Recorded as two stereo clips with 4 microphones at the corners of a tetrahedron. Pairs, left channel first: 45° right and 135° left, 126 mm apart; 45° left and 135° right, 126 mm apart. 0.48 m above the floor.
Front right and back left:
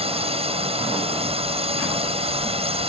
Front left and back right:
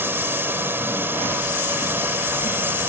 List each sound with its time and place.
0.0 s a drone: 155° left